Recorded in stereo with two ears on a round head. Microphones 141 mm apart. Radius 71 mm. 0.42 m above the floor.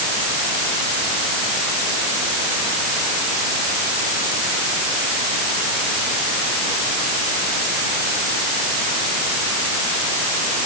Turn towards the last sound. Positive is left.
No sound to turn to.